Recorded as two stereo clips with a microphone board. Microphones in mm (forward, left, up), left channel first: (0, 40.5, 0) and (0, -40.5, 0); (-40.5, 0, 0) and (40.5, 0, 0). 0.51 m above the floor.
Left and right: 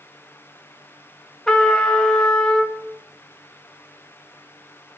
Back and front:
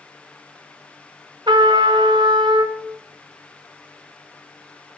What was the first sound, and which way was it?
A trumpet, 10° left.